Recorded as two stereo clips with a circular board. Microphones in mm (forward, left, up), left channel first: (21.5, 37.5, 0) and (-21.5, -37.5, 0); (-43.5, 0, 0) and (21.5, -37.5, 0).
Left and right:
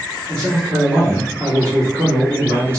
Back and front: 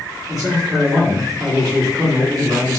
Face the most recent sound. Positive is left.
turn(degrees=-50)